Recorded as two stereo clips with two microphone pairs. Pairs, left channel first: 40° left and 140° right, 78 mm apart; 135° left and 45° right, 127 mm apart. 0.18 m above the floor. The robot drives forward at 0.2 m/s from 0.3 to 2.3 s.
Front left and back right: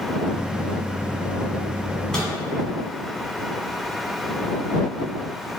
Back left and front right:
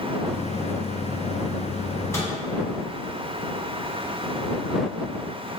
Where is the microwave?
110° left, 0.8 m; by 2.3 s 115° left, 0.8 m.